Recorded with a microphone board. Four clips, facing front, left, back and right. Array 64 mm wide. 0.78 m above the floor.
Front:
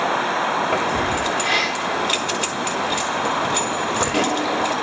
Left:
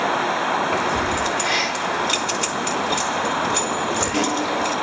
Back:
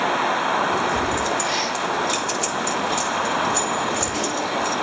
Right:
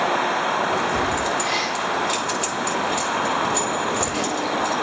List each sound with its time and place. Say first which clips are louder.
0.7 s keys jangling: left 1 dB, front 1 dB; 10° left, 2.5 m